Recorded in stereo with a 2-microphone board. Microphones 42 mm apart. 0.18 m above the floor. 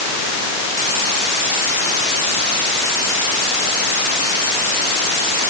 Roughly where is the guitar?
I don't hear a guitar.